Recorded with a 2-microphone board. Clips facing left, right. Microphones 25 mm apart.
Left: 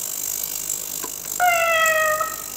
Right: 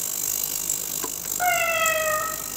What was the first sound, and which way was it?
A cat meowing, 55° left (ahead or behind).